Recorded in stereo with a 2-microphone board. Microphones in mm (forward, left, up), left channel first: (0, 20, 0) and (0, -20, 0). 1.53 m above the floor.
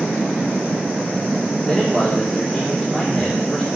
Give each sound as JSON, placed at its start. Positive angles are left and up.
{"t": 1.7, "sound": "a man speaking", "side_deg": 0, "distance_m": 3.5}